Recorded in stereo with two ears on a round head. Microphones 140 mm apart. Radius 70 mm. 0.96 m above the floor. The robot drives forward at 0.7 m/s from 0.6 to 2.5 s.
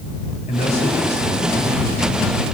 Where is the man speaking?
50° left (ahead or behind), 6.5 m; by 2.4 s 40° left (ahead or behind), 7.5 m.